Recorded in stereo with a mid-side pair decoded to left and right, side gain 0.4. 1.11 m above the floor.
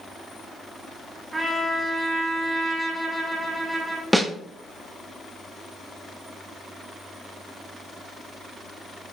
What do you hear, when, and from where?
1.3 s a trumpet: 30° right, 2.5 m
4.1 s a snare drum: 5° right, 1.1 m